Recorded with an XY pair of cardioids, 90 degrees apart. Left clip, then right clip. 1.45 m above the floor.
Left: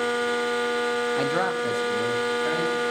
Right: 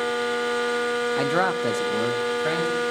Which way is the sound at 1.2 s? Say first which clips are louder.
Right 2 dB; 5° right.